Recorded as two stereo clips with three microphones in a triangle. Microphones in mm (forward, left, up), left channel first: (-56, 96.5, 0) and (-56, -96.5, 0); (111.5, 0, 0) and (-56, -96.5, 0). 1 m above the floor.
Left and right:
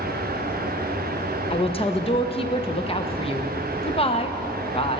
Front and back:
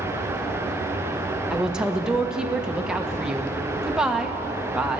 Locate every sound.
1.5 s a woman speaking: 125° left, 0.8 m